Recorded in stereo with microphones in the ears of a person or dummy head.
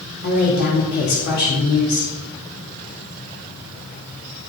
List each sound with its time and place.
0.2 s a woman speaking: 55° left (ahead or behind), 4 m